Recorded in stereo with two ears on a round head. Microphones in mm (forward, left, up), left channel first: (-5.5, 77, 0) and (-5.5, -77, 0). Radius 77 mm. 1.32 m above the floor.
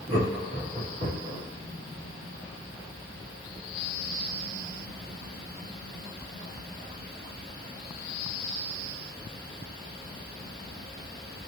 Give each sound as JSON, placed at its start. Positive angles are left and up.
{"t": 0.1, "sound": "laughter", "side_deg": -40, "distance_m": 1.7}